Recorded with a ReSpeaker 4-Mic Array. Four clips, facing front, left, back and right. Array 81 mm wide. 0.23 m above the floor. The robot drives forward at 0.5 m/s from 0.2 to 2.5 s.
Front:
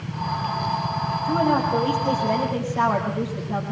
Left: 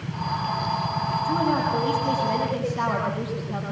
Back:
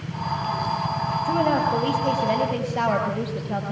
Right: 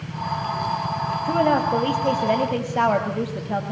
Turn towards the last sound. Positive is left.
turn(degrees=-110)